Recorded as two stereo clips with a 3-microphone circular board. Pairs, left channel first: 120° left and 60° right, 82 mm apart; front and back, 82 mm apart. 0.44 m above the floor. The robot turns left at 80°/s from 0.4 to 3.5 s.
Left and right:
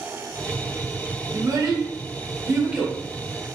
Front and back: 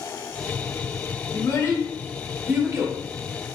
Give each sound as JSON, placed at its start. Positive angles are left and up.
{"t": 1.3, "sound": "a child speaking", "azimuth_deg": -20, "distance_m": 0.8}